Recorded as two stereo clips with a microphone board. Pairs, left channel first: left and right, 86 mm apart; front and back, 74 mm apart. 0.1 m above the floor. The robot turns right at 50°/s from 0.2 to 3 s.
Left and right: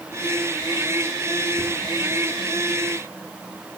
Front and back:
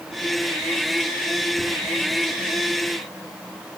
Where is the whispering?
160° right, 5 m; by 1.7 s 150° right, 5 m.